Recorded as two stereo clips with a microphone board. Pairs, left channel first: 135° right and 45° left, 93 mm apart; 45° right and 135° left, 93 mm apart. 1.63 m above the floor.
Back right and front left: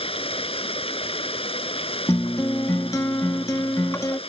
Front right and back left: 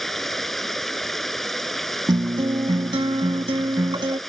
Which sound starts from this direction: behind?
A guitar, at 2.1 s.